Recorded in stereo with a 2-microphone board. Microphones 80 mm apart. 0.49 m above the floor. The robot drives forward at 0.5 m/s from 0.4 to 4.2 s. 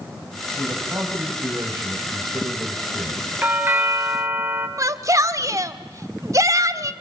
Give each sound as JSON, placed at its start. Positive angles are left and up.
{"t": 0.6, "sound": "a man speaking", "side_deg": -30, "distance_m": 3.5}
{"t": 3.4, "sound": "a doorbell", "side_deg": -25, "distance_m": 2.0}
{"t": 4.8, "sound": "a shout", "side_deg": -40, "distance_m": 1.1}